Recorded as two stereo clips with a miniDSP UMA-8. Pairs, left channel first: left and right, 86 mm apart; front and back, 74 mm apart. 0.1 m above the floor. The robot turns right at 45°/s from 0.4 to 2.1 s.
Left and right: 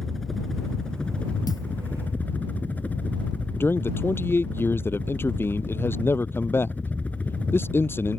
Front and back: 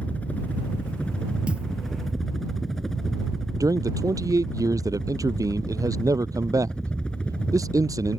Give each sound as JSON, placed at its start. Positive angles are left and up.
{"t": 0.0, "sound": "a helicopter", "azimuth_deg": 10}
{"t": 1.5, "sound": "a thud", "azimuth_deg": 110}
{"t": 3.6, "sound": "a man speaking", "azimuth_deg": 150}